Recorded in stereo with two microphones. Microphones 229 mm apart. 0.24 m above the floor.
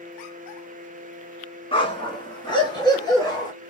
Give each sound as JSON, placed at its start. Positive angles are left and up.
{"t": 1.7, "sound": "a dog barking", "side_deg": 25, "distance_m": 1.0}